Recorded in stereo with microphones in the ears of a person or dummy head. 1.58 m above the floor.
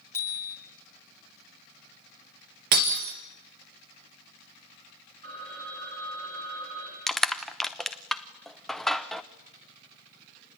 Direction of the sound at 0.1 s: 20° left (ahead or behind).